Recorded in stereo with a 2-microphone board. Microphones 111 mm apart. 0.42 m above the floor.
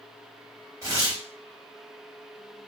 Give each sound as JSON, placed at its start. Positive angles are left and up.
{"t": 0.8, "sound": "tearing paper", "side_deg": -30, "distance_m": 2.0}